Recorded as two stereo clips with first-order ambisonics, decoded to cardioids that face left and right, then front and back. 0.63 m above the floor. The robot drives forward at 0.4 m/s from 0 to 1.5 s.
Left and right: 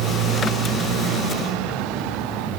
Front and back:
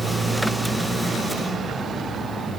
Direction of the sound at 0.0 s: 110° right.